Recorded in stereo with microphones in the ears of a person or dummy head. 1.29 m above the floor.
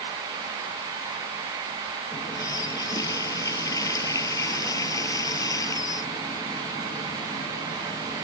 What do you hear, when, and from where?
2.1 s a running tap: 20° left (ahead or behind)